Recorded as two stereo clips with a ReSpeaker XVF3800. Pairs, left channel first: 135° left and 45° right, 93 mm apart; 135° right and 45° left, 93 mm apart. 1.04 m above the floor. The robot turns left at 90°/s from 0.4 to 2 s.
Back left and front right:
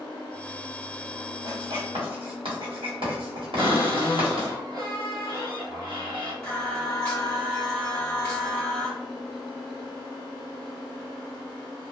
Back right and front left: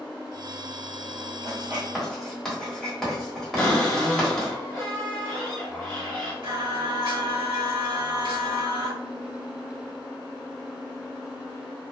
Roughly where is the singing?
Ahead left.